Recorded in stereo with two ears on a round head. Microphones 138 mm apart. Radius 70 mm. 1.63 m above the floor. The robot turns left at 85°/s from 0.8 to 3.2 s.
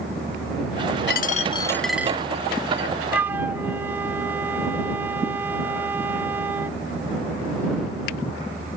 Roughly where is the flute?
Centre.